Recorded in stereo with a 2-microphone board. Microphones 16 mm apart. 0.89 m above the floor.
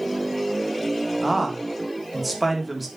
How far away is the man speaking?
About 1.9 m.